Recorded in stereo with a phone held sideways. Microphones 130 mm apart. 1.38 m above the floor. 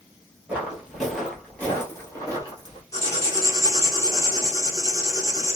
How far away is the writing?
About 1.6 m.